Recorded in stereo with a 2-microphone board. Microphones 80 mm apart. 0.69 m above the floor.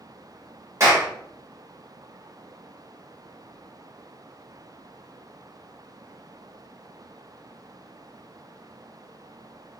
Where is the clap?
40° right (ahead or behind), 1.7 m.